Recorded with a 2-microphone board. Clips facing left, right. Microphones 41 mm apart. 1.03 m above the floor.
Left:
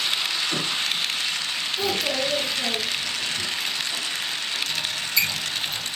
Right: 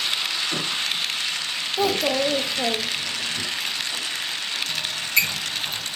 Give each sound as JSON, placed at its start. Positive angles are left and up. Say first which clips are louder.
{"t": 1.8, "sound": "a child speaking", "louder": "right 5 dB", "side_deg": -50, "distance_m": 0.6}
{"t": 4.7, "sound": "a squeak", "louder": "right 1 dB", "side_deg": -60, "distance_m": 1.6}